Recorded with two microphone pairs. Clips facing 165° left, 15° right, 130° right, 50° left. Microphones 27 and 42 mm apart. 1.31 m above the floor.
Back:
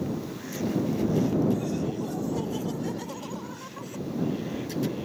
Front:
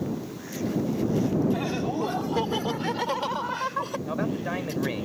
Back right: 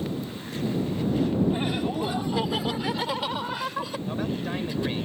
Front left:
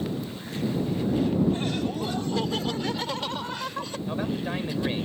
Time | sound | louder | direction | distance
1.5 | laughter | front 1 dB, back right 1 dB | 60° right | ?
4.1 | a man speaking | front 2 dB, even | 35° right | ?